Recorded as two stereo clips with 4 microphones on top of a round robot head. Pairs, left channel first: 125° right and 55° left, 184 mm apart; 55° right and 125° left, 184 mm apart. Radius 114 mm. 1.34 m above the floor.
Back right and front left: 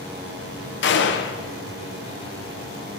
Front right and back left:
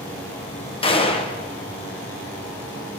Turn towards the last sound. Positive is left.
turn(degrees=-115)